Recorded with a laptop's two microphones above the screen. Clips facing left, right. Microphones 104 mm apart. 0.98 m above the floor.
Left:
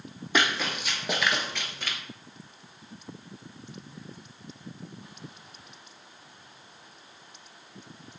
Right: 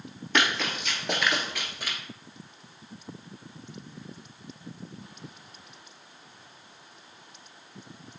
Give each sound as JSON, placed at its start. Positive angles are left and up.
{"t": 0.3, "sound": "running footsteps", "side_deg": 10, "distance_m": 1.4}